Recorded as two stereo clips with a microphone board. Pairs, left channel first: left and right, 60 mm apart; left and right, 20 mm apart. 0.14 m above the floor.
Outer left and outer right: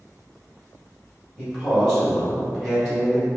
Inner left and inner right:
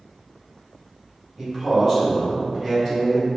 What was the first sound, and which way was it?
A man speaking, 15° right (ahead or behind).